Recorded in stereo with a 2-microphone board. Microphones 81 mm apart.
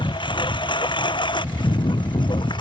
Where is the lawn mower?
85° left; by 2.6 s 75° left (ahead or behind).